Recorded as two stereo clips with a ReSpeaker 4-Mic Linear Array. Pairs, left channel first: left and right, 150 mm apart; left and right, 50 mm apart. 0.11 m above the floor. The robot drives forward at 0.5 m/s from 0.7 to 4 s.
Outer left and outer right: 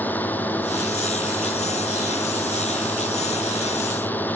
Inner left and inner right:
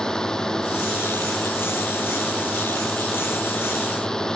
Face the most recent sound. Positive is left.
turn(degrees=10)  # may be behind; listen again after turning